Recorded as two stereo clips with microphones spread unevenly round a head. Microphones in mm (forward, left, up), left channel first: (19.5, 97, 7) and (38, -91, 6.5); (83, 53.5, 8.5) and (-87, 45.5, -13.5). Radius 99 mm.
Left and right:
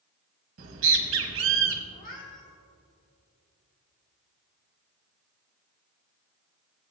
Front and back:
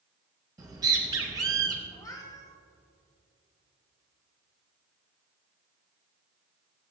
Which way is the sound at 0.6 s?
100° right.